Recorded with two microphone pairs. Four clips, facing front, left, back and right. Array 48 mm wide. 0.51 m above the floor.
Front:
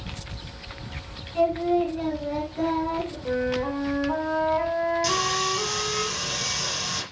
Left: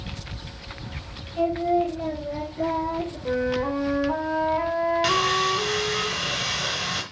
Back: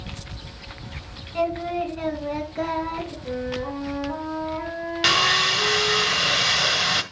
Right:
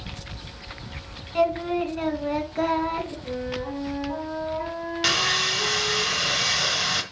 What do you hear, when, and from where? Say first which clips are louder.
1.4 s singing: left 1 dB, front 3 dB; 110° right, 2.5 m
3.2 s a flute: left 6 dB, front 4 dB; 65° left, 2 m
5.0 s sawing: left 2 dB, back 5 dB; 165° right, 1.2 m